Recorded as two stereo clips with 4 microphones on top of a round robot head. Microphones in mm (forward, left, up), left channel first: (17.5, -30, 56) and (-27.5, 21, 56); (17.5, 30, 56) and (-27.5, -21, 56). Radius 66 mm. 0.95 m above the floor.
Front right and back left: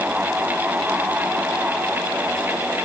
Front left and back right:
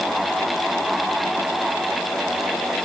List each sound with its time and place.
Only background noise.